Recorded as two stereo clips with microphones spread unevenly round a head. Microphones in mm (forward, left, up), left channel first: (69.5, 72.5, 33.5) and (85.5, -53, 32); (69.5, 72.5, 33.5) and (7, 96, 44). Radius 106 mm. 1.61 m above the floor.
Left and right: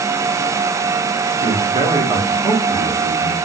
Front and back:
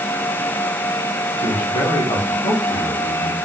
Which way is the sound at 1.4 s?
20° right.